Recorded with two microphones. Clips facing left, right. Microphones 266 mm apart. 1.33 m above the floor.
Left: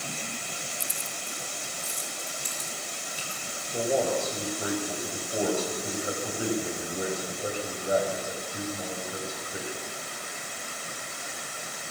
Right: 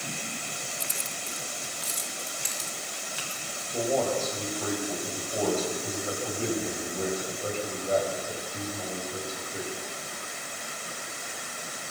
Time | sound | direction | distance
0.8 | keys jangling | 70° right (ahead or behind) | 0.8 m
3.7 | a man speaking | 10° left (ahead or behind) | 6.5 m